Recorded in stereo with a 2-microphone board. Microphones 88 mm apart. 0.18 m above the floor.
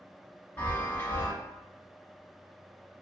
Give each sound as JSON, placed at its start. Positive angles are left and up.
{"t": 0.6, "sound": "a chime", "side_deg": 25, "distance_m": 1.2}